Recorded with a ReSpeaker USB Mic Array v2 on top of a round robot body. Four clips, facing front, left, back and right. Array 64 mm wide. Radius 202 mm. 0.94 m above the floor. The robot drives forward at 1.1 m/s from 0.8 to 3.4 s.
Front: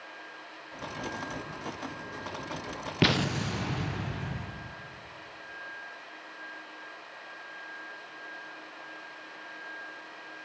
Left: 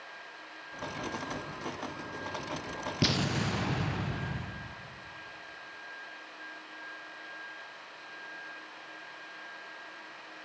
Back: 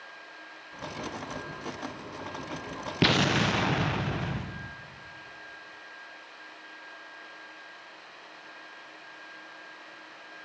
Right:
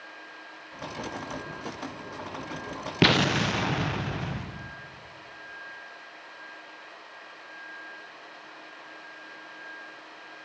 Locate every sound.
3.0 s an explosion: 85° right, 0.5 m; by 4.7 s 150° right, 0.7 m